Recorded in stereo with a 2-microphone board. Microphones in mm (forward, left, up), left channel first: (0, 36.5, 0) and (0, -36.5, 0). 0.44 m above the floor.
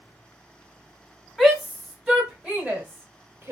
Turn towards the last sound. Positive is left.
turn(degrees=-30)  # may be behind; listen again after turning